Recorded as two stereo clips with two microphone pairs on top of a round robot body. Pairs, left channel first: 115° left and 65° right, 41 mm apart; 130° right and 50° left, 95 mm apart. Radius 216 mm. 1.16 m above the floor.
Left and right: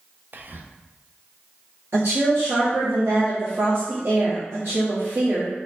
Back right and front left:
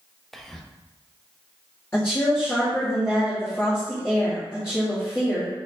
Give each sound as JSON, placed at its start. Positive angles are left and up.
{"t": 0.3, "sound": "whispering", "azimuth_deg": -50, "distance_m": 0.6}
{"t": 1.9, "sound": "a woman speaking", "azimuth_deg": -60, "distance_m": 1.2}